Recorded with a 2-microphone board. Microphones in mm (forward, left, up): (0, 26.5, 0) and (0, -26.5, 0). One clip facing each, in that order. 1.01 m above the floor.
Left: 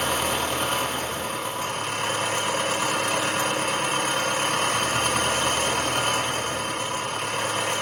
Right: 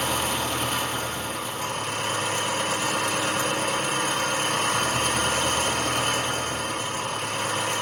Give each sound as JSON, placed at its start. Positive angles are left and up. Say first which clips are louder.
{"t": 0.0, "sound": "an engine running", "louder": "left 1 dB", "side_deg": 45, "distance_m": 0.9}